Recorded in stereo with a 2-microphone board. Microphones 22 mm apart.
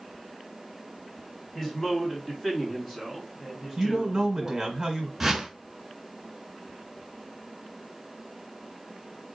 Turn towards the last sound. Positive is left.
turn(degrees=-10)  # may be behind; listen again after turning